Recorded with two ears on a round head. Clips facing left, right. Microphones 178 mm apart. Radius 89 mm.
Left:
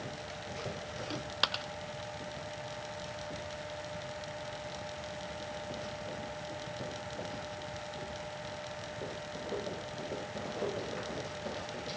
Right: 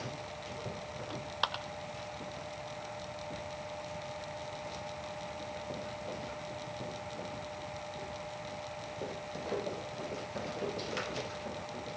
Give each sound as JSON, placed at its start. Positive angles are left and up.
{"t": 1.1, "sound": "a dropped coin", "side_deg": 30}